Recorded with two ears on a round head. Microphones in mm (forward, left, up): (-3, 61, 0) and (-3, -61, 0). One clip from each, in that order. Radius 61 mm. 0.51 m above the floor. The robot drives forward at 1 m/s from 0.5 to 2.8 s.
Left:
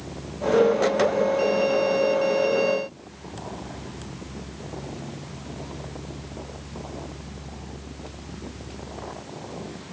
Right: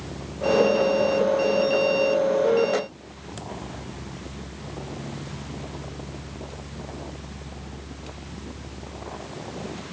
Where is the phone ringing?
I don't hear a phone ringing.